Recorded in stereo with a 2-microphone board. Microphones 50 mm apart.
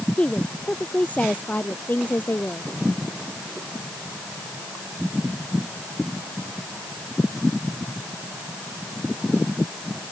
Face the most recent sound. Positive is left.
turn(degrees=40)  # may be behind; listen again after turning